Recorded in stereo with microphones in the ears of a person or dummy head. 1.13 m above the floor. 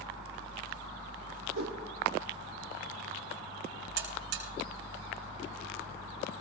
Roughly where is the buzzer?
Right.